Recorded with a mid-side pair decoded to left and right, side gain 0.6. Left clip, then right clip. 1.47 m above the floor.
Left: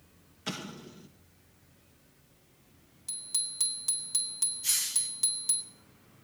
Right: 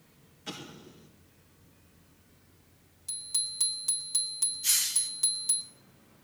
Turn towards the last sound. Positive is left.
turn(degrees=-15)